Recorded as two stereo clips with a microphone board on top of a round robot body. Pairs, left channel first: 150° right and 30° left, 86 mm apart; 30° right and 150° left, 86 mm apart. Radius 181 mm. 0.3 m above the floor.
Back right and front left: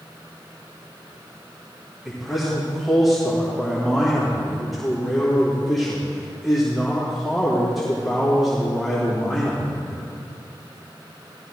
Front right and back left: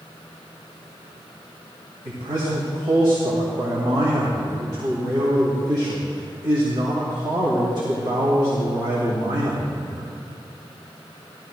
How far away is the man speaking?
About 2 m.